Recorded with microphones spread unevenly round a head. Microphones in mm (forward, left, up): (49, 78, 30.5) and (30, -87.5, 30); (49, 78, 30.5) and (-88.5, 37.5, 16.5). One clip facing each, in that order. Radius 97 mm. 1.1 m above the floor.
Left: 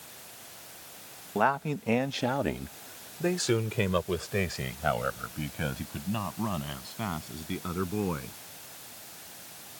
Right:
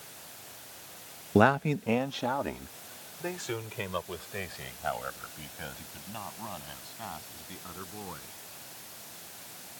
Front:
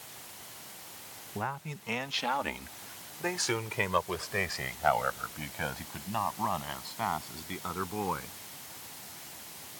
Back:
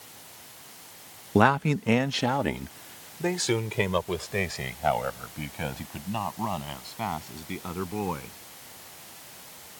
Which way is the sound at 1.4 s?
145° right.